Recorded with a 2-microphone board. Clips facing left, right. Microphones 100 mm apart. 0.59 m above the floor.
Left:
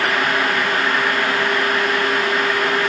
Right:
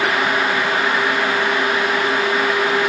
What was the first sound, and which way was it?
Only background noise.